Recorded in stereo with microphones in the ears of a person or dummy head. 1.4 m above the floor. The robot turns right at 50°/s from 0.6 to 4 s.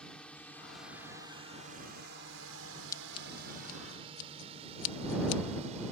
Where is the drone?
5° left (ahead or behind); by 5.9 s 40° right (ahead or behind).